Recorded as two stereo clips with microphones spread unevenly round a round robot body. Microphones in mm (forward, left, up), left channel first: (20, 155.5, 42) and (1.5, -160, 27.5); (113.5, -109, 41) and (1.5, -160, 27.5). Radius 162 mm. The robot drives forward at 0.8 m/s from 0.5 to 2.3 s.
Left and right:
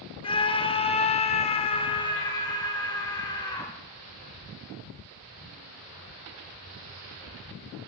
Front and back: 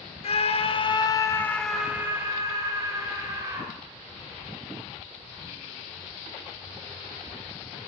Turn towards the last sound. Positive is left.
turn(degrees=160)